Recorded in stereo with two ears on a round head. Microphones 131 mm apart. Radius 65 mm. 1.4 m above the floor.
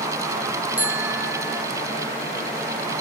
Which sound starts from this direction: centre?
A bicycle bell, at 0.8 s.